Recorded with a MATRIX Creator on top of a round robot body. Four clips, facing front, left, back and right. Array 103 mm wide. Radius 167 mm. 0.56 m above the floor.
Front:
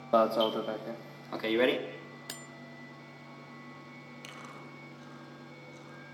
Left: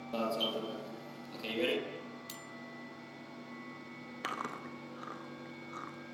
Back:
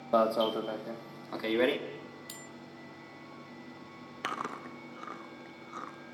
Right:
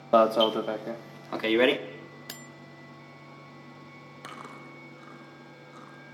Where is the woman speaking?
No woman speaking in this recording.